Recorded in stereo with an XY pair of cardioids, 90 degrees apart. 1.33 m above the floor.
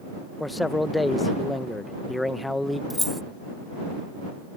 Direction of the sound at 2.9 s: Straight ahead.